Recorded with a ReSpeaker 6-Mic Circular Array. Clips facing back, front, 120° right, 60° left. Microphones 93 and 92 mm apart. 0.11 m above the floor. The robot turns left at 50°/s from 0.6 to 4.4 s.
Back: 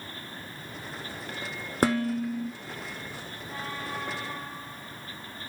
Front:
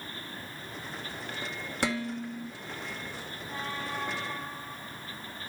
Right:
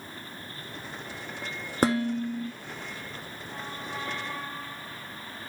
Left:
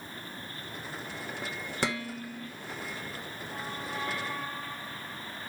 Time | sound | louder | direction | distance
1.8 | dishes clattering | back 7 dB, right 9 dB | 150° right | 1.3 m